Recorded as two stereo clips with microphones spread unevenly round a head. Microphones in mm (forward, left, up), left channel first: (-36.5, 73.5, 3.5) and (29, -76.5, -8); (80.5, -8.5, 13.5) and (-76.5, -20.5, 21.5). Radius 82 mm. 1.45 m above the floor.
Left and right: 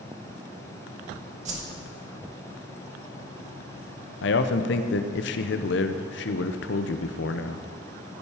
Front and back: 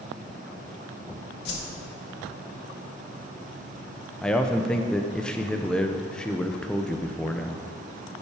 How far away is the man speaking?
About 0.7 m.